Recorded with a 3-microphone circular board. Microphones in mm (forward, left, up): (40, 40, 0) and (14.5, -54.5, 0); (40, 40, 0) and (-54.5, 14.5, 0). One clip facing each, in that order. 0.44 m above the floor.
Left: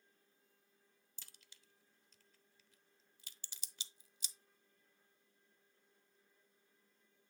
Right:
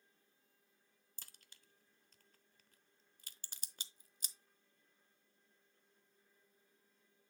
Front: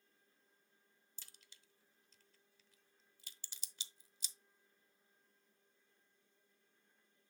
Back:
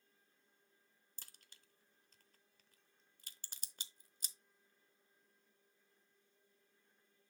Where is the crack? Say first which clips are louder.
Right 2 dB, back 2 dB; 135° right, 0.7 m.